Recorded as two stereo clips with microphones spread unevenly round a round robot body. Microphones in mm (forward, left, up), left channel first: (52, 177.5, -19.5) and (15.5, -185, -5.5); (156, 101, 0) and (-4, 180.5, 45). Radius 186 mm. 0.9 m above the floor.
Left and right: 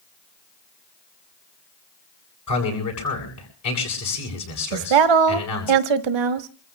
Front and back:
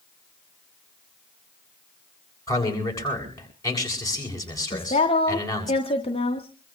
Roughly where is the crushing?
I don't hear crushing.